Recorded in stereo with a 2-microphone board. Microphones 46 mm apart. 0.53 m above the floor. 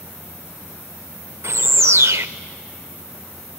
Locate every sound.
1.4 s a bird: 65° right (ahead or behind), 0.6 m